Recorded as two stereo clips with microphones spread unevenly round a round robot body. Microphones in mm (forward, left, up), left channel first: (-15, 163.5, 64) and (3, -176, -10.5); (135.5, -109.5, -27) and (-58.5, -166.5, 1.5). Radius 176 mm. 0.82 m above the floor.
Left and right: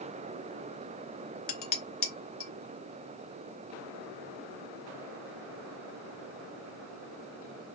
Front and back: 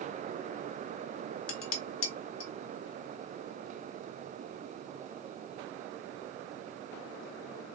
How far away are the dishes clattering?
About 1.2 m.